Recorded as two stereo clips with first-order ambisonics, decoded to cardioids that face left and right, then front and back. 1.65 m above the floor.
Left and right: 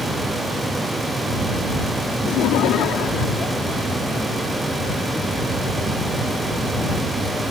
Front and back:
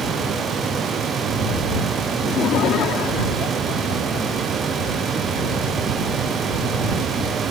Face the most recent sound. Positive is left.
turn(degrees=30)